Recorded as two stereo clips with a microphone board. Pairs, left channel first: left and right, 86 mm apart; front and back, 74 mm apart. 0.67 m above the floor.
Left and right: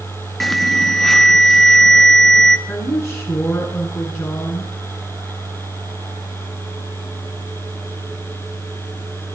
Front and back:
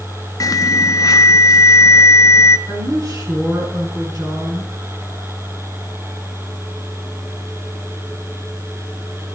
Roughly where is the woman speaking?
Behind left.